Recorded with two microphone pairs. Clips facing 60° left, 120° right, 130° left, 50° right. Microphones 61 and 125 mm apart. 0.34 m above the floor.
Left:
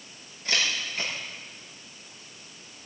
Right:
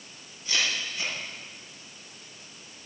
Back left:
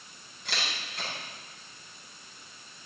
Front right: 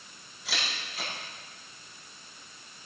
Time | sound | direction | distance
0.5 | a camera shutter | 40° left | 8 m